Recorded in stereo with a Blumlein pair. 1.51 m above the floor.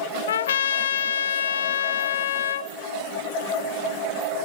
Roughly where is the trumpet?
Ahead left.